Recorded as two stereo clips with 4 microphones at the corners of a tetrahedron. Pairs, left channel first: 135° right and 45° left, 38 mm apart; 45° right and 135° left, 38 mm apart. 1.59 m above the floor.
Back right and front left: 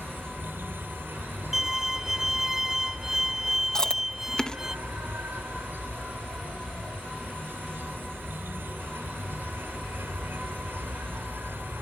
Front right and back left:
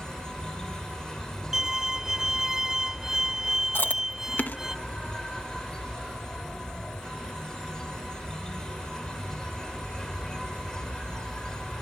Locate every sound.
0.0 s an insect: 25° left
1.5 s a violin: 95° left
3.8 s chewing: 70° right